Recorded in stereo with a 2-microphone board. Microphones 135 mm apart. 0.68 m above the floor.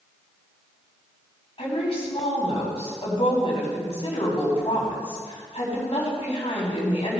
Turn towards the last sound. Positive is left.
turn(degrees=50)  # may be behind; listen again after turning